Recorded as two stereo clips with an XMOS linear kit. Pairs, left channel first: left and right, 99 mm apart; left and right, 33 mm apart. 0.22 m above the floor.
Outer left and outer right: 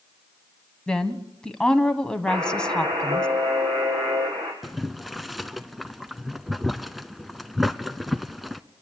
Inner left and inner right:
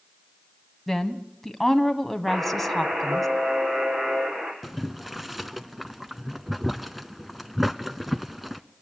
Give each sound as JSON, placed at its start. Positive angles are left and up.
{"t": 0.9, "sound": "a woman speaking", "side_deg": 10, "distance_m": 1.4}
{"t": 2.3, "sound": "a buzzer", "side_deg": -65, "distance_m": 4.0}
{"t": 4.6, "sound": "boiling", "side_deg": 0, "distance_m": 0.8}